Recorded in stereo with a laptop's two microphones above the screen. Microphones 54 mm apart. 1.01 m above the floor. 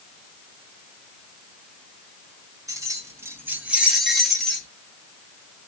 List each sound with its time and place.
2.7 s keys jangling: 75° right (ahead or behind), 0.8 m; by 4.7 s 15° left (ahead or behind), 0.9 m